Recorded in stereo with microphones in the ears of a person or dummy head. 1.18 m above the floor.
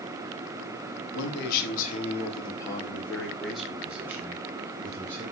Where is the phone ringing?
I don't hear a phone ringing.